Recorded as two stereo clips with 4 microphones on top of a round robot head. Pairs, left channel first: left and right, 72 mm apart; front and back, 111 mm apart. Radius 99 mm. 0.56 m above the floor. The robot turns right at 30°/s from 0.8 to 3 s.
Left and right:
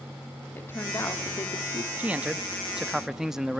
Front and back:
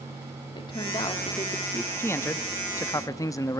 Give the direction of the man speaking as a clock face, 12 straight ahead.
1 o'clock.